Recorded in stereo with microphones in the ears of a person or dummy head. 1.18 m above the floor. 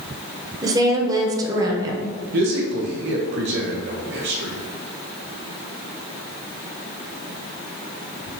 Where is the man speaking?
55° right (ahead or behind), 0.7 m.